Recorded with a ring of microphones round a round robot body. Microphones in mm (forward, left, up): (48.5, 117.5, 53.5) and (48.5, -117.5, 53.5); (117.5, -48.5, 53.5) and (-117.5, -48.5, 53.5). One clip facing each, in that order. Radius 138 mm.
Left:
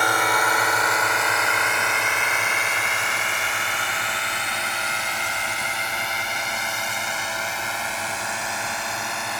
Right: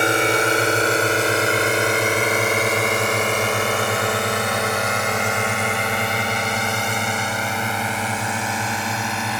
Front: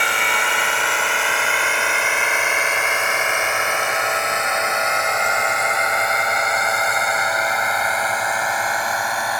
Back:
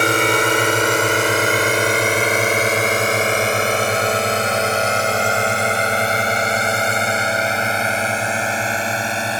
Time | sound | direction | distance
0.0 | a drone | 150° right | ?